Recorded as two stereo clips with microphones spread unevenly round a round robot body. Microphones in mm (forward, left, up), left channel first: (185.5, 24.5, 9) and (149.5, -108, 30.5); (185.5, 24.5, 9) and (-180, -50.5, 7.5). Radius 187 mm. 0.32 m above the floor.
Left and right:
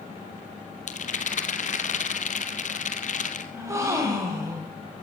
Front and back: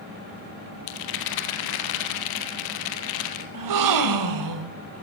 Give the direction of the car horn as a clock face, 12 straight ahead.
I don't hear a car horn.